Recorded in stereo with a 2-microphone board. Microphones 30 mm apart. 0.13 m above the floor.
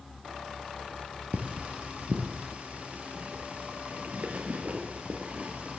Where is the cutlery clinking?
50° right (ahead or behind), 1.9 m.